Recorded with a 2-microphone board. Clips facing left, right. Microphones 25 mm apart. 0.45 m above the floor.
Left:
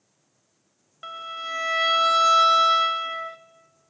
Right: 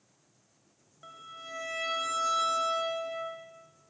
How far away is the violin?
About 0.9 m.